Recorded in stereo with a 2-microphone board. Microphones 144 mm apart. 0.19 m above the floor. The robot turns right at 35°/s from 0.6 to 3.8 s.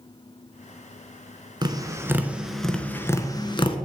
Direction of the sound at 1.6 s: 30° right (ahead or behind).